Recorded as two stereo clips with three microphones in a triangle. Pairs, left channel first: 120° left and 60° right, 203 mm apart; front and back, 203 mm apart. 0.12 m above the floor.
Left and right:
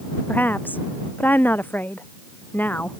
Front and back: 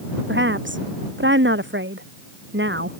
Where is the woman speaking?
160° right.